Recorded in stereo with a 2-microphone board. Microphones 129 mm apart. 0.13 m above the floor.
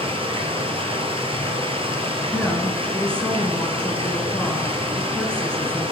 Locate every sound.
0.0 s running water: 45° right (ahead or behind), 1.0 m
2.3 s a woman speaking: 5° left (ahead or behind), 1.3 m